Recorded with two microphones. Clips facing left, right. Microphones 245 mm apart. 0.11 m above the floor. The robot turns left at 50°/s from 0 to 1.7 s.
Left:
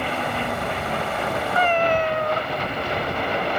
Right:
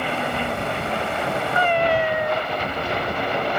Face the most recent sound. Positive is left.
turn(degrees=-10)  # may be behind; listen again after turning